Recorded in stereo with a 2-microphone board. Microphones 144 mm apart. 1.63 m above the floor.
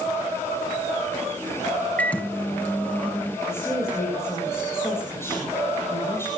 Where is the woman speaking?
15° left (ahead or behind), 6.5 m.